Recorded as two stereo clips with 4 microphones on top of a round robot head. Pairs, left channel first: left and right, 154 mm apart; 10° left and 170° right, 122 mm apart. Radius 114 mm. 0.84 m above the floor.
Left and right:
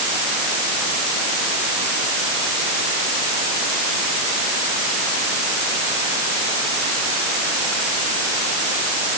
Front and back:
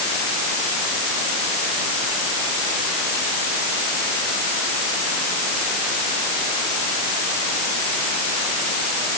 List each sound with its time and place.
Only background noise.